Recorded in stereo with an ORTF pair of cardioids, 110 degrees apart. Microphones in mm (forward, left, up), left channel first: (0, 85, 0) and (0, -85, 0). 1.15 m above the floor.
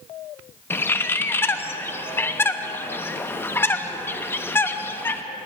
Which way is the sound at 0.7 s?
15° left.